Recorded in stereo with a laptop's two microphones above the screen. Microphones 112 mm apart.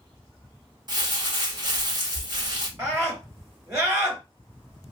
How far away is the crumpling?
About 1.6 m.